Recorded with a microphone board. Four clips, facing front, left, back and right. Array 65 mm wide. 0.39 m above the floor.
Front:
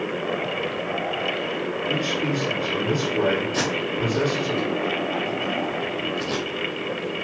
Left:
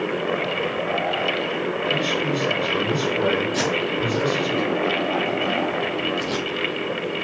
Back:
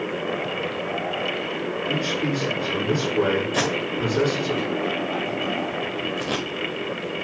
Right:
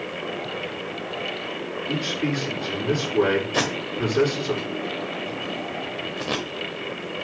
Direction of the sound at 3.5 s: 115° right.